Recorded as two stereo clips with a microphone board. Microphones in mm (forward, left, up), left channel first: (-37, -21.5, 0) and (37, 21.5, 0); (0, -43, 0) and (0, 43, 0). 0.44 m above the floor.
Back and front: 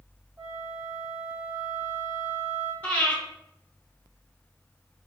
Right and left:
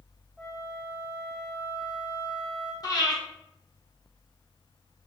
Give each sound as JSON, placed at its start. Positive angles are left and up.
{"t": 0.4, "sound": "a flute", "azimuth_deg": 5, "distance_m": 1.5}
{"t": 2.8, "sound": "breathing", "azimuth_deg": -90, "distance_m": 0.9}